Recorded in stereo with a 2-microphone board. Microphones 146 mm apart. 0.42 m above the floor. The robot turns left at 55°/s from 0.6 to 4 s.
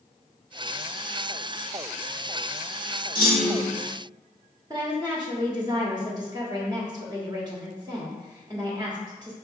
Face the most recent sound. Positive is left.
turn(degrees=-30)  # may be behind; listen again after turning